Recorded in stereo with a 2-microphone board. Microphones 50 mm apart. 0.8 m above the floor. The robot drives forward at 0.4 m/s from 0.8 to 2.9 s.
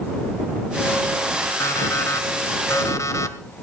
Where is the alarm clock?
80° left, 1.8 m.